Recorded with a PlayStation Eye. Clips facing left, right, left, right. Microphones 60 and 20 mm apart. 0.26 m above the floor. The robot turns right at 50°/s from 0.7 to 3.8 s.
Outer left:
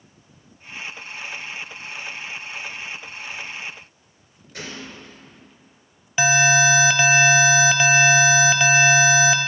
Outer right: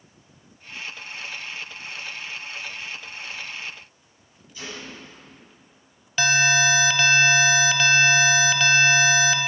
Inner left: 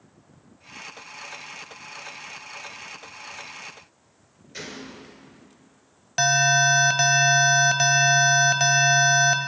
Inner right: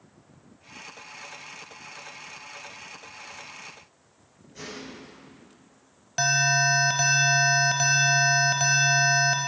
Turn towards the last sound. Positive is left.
turn(degrees=15)  # may be behind; listen again after turning